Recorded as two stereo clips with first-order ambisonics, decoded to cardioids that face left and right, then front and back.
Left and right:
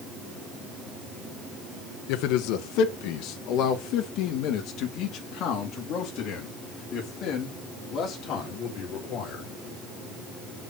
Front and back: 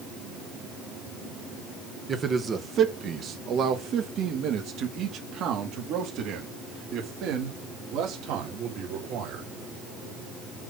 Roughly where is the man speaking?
Left.